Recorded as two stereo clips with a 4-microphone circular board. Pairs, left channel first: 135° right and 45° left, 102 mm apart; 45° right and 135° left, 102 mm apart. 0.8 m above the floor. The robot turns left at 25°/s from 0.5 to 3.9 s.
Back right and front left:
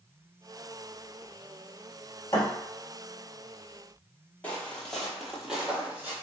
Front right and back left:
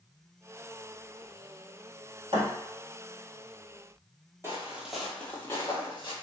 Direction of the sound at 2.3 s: 170° left.